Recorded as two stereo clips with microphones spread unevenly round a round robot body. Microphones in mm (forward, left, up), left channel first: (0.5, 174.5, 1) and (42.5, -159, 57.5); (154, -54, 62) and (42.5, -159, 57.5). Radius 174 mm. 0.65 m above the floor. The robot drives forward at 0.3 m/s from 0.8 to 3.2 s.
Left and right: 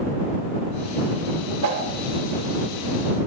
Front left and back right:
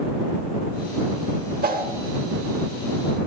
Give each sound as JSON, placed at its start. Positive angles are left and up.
{"t": 1.6, "sound": "a whoosh", "azimuth_deg": -115, "distance_m": 2.5}